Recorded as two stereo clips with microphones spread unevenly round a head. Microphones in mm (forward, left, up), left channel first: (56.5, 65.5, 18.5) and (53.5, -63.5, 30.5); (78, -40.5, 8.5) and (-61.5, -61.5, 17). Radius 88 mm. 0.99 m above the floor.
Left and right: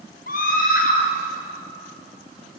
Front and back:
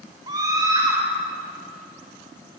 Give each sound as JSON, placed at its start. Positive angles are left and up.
{"t": 0.3, "sound": "a scream", "azimuth_deg": 120, "distance_m": 4.0}